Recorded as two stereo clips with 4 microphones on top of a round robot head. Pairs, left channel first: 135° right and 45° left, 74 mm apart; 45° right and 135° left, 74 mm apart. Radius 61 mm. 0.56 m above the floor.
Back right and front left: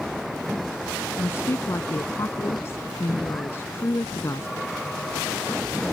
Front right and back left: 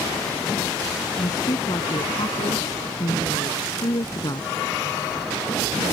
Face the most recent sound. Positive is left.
turn(degrees=-80)